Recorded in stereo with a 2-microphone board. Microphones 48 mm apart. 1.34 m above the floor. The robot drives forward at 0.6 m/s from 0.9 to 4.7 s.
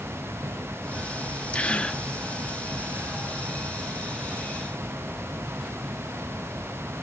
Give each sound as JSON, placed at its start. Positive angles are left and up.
{"t": 1.5, "sound": "a gasp", "side_deg": 25, "distance_m": 1.3}